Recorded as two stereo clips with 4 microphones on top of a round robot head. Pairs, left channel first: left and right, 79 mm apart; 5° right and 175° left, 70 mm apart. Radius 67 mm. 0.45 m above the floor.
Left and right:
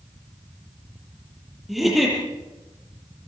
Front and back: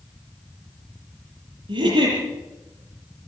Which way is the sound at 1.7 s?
Straight behind.